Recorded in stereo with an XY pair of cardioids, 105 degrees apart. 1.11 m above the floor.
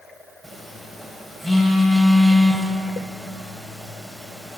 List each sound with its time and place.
0.4 s a phone buzzing: 5° right, 2.5 m